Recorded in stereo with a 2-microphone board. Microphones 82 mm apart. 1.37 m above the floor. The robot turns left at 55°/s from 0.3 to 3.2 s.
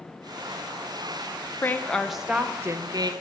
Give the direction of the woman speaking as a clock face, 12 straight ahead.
11 o'clock.